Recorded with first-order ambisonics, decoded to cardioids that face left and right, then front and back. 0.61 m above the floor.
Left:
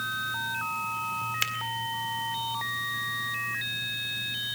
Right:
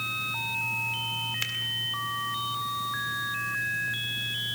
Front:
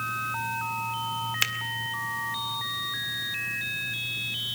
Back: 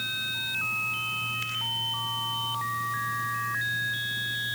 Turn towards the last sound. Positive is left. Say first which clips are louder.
# left 2 dB, front 7 dB
turn(degrees=20)